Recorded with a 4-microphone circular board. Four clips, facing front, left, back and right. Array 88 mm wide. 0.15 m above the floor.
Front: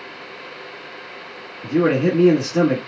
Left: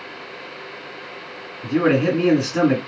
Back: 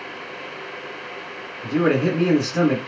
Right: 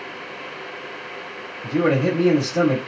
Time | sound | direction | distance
1.6 | a man speaking | 75° left | 1.7 m